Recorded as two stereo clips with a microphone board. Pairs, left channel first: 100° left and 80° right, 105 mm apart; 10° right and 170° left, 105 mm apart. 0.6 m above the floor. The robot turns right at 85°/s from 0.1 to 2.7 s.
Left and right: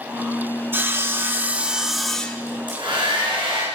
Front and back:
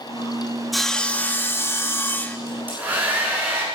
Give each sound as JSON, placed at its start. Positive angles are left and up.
{"t": 0.7, "sound": "sawing", "azimuth_deg": -100, "distance_m": 1.1}
{"t": 2.5, "sound": "a hair dryer", "azimuth_deg": -140, "distance_m": 5.5}